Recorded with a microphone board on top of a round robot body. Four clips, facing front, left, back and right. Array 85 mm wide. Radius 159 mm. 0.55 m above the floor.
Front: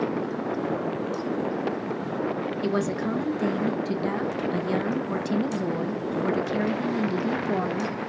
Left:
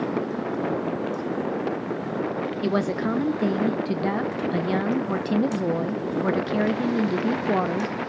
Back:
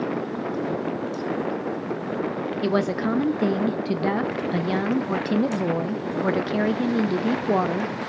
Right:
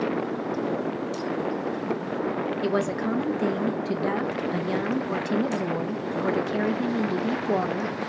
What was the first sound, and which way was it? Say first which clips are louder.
A woman speaking: left 2 dB, back 4 dB; 155° left.